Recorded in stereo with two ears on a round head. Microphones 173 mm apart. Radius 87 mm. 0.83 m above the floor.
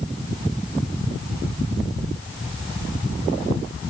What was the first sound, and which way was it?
Only background noise.